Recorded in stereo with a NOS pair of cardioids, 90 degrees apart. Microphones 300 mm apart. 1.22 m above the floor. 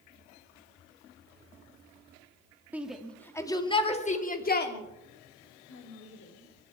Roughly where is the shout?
Ahead.